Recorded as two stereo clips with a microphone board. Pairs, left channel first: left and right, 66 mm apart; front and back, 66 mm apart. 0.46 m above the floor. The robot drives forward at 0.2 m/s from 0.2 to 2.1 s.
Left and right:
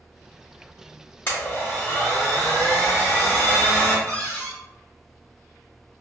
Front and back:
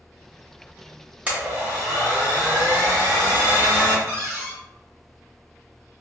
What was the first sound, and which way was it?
A blender, 130° left.